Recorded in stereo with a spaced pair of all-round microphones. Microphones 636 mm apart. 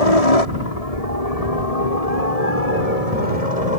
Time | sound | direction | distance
0.0 | a helicopter | 65° left (ahead or behind) | ?